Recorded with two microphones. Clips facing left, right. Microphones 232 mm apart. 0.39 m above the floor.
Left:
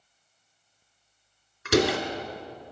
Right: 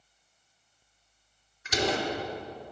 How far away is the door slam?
About 3.5 m.